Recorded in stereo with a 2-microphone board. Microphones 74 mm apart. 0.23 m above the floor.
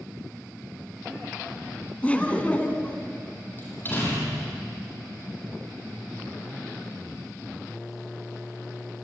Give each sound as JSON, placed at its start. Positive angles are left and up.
{"t": 2.0, "sound": "laughter", "side_deg": 20, "distance_m": 2.5}
{"t": 3.6, "sound": "a door slam", "side_deg": 30, "distance_m": 6.5}